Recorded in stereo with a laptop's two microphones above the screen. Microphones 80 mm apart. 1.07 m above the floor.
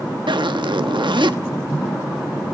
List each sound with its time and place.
0.3 s a zipper: 80° right, 0.9 m